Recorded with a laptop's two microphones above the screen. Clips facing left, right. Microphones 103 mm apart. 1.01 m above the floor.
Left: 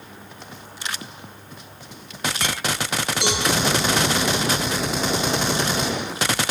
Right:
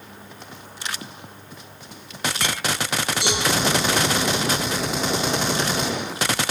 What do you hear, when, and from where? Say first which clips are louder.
3.2 s a cowbell: left 1 dB; 85° left, 6 m